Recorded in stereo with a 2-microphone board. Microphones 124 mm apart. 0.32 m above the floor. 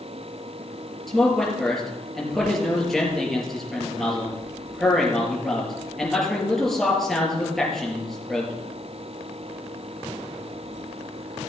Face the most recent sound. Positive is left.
turn(degrees=0)  # may be behind; listen again after turning